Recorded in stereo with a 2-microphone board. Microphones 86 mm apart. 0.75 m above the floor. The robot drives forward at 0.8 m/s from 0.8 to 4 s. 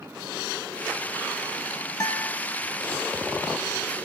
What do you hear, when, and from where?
2.0 s a guitar: 40° left (ahead or behind), 0.7 m